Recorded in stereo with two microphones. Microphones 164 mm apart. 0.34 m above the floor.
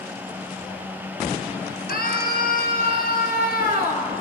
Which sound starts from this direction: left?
A scream, at 1.9 s.